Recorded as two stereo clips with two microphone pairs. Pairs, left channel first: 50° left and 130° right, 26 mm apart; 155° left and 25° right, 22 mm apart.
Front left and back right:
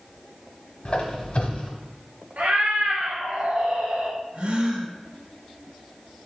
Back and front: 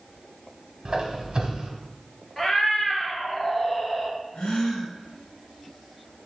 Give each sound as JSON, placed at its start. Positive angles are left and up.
{"t": 0.8, "sound": "a squeak", "azimuth_deg": 20, "distance_m": 1.0}
{"t": 2.4, "sound": "a cat meowing", "azimuth_deg": -135, "distance_m": 1.0}
{"t": 4.3, "sound": "a gasp", "azimuth_deg": -165, "distance_m": 1.5}